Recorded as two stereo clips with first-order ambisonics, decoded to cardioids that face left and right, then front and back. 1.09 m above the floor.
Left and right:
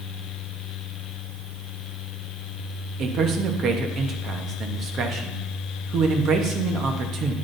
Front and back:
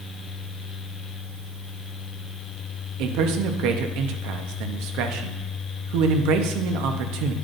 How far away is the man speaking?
About 1.0 m.